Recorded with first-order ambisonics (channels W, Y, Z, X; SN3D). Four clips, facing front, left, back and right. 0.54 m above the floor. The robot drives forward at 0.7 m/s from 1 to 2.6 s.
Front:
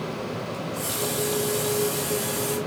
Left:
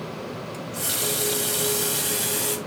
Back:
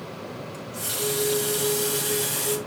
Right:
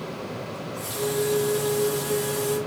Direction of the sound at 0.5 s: 95° left.